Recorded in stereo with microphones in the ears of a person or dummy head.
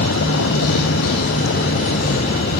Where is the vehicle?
65° left (ahead or behind); by 2.6 s 45° left (ahead or behind).